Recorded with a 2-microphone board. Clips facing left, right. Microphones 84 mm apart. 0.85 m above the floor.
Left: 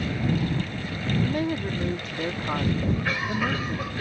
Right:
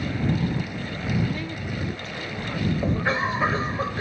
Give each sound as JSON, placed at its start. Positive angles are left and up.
{"t": 1.2, "sound": "a woman speaking", "side_deg": 55}
{"t": 2.8, "sound": "a cough", "side_deg": -30}